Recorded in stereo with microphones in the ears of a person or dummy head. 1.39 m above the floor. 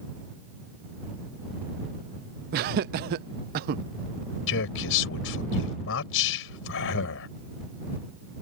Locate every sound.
2.5 s laughter: 55° right (ahead or behind)
4.5 s a man speaking: 70° left (ahead or behind)